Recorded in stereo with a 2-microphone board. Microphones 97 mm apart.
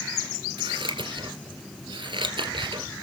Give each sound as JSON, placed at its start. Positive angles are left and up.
{"t": 0.6, "sound": "scissors", "side_deg": -60, "distance_m": 2.5}